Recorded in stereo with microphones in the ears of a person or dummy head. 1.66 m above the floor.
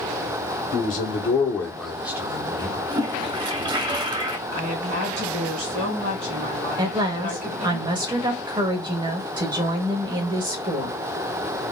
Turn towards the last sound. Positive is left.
turn(degrees=-25)  # may be behind; listen again after turning